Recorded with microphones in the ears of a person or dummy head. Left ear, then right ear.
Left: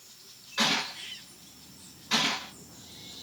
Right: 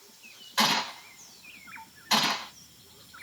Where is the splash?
No splash in this recording.